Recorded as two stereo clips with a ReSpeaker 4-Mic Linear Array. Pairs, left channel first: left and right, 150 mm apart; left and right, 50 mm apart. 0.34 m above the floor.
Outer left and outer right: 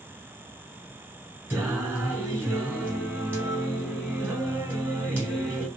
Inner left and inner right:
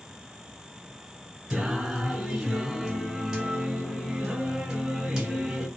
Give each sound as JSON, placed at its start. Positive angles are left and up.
{"t": 1.5, "sound": "singing", "side_deg": -15, "distance_m": 1.2}